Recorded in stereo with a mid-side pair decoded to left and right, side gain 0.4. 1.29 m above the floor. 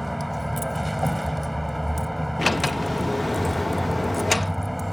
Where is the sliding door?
20° left.